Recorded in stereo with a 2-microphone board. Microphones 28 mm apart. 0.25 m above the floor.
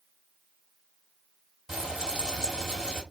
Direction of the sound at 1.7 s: 20° right (ahead or behind).